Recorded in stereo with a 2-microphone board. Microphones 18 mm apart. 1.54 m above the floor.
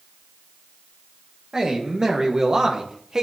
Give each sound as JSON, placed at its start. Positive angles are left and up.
{"t": 1.5, "sound": "a man speaking", "side_deg": -35, "distance_m": 2.5}